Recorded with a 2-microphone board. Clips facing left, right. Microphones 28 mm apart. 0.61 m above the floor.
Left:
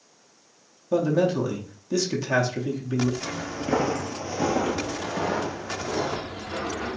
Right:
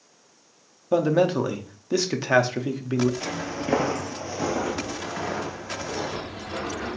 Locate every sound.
0.9 s a man speaking: 30° right (ahead or behind), 0.6 m
3.2 s footsteps: 40° right (ahead or behind), 0.7 m; by 7.0 s 45° left (ahead or behind), 1.9 m